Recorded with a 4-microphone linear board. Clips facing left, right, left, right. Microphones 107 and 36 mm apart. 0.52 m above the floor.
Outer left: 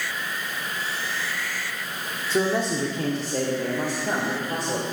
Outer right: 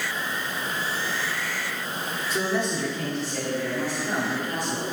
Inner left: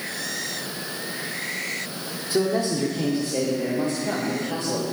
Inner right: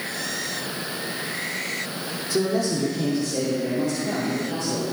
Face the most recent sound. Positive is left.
turn(degrees=45)  # may be behind; listen again after turning